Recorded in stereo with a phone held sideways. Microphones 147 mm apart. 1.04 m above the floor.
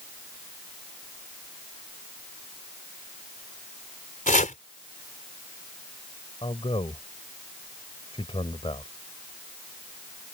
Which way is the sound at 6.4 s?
40° left (ahead or behind).